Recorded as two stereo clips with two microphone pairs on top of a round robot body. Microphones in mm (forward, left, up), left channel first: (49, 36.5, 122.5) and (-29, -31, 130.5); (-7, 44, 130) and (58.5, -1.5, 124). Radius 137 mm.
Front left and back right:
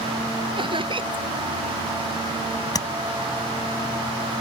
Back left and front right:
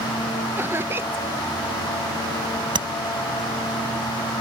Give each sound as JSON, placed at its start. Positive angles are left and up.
{"t": 0.6, "sound": "laughter", "azimuth_deg": -100}
{"t": 2.8, "sound": "tapping", "azimuth_deg": -15}